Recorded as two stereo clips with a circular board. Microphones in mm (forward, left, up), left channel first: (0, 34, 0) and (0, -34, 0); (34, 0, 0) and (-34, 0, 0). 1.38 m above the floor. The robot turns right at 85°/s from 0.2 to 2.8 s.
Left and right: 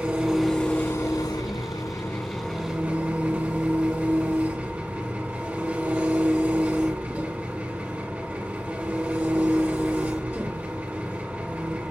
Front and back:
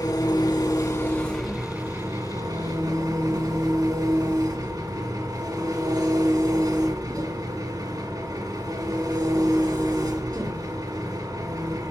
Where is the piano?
I don't hear a piano.